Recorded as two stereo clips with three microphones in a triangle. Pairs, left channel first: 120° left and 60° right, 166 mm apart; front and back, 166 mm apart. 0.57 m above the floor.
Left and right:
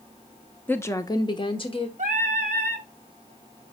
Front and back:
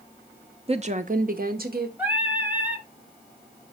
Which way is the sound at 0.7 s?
170° right.